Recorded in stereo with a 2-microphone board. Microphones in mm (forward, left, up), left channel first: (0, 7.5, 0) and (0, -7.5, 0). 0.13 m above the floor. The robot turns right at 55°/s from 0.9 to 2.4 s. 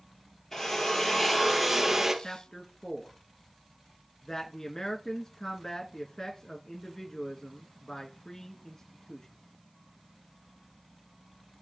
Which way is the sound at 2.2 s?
35° left (ahead or behind).